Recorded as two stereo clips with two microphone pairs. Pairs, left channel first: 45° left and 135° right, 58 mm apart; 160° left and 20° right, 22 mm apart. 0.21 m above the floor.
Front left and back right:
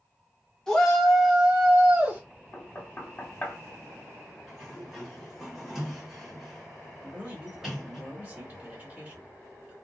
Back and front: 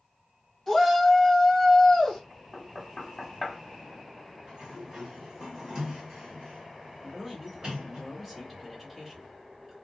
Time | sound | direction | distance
0.7 | a shout | 110° left | 1.3 m
2.5 | knocking | 70° left | 0.8 m
4.5 | a sliding door | 55° right | 1.6 m
7.0 | a man speaking | 100° right | 1.8 m